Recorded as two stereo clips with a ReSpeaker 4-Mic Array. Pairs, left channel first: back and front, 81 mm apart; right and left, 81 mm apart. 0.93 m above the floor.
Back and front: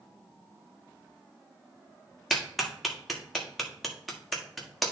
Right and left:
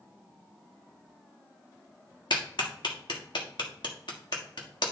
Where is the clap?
90° right, 1.6 m.